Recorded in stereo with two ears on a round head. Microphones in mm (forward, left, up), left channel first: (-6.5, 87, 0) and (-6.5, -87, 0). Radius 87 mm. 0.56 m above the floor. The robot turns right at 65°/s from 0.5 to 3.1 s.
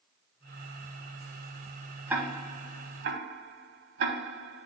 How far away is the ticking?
About 0.9 m.